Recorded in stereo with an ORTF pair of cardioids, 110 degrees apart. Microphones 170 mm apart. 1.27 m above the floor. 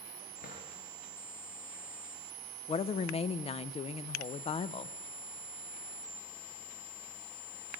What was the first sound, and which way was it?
A drawer, 50° left.